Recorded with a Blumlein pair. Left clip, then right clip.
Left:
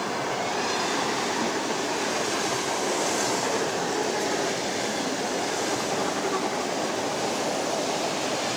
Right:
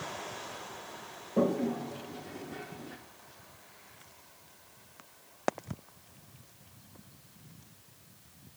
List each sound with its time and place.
1.4 s a toilet flushing: 55° right, 1.5 m